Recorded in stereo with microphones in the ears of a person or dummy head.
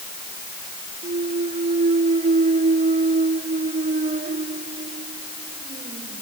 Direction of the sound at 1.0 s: 35° right (ahead or behind).